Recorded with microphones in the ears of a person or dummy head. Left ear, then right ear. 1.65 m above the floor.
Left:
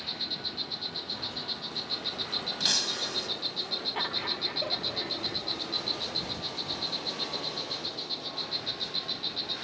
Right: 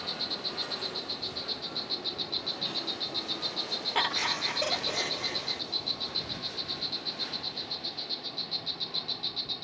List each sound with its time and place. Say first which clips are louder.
0.0 s an insect: even; 10° right (ahead or behind)
2.6 s breaking glass: left 5 dB; 65° left (ahead or behind)
4.0 s laughter: right 7 dB; 80° right